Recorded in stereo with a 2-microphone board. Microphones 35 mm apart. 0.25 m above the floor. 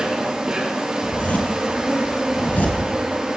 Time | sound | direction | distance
0.0 | an insect | 20° right (ahead or behind) | 4 m
1.0 | a zipper | 65° left (ahead or behind) | 3 m